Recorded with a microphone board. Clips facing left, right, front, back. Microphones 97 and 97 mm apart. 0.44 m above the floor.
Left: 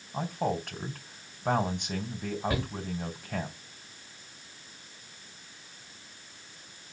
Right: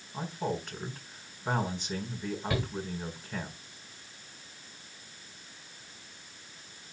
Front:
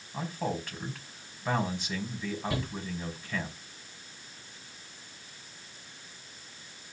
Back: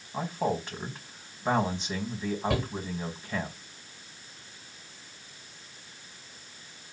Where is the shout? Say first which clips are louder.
Right 2 dB, back 5 dB; 150° left, 8 m.